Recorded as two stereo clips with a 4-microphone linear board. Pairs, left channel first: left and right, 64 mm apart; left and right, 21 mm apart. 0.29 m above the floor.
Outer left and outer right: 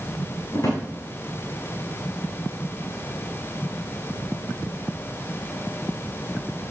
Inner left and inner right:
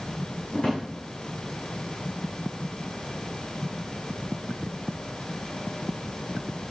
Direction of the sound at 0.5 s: 55° left (ahead or behind).